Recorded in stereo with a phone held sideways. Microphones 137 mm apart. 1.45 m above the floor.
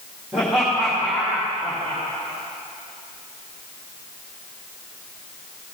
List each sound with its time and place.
0.3 s laughter: 5° right (ahead or behind), 2 m